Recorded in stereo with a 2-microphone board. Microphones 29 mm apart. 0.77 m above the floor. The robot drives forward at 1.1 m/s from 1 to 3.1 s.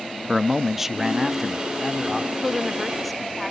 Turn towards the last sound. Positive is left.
turn(degrees=0)  # may be behind; listen again after turning